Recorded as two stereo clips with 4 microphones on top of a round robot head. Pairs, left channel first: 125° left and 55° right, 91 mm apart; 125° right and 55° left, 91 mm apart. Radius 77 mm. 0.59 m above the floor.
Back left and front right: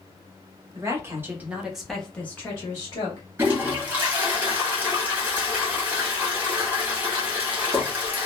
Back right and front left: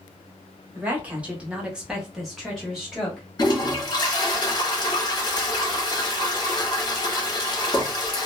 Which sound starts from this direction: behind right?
A toilet flushing, at 3.4 s.